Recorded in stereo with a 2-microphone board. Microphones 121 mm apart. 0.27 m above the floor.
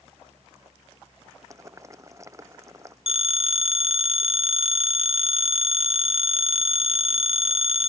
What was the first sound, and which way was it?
Boiling, 25° right (ahead or behind).